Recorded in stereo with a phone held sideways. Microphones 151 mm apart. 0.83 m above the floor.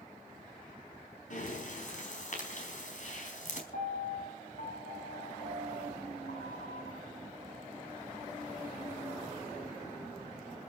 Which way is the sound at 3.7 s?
85° left.